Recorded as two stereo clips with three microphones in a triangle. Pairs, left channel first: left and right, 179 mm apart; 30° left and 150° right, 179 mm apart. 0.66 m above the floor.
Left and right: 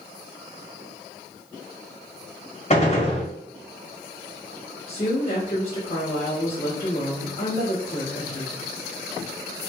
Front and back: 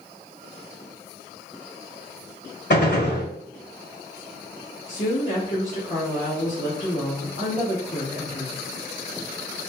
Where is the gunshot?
40° left, 1.4 m.